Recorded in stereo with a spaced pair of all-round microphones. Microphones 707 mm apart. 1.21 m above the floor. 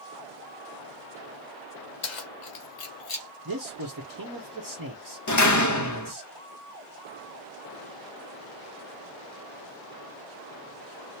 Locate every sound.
2.0 s keys jangling: 85° left, 1.0 m; by 3.3 s 25° left (ahead or behind), 0.8 m
3.5 s a man speaking: 30° right (ahead or behind), 0.9 m
5.3 s a door slam: 25° left (ahead or behind), 0.7 m